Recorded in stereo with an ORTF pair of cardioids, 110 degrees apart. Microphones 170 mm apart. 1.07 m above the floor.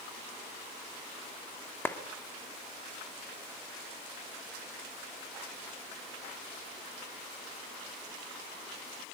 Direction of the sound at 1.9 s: 15° left.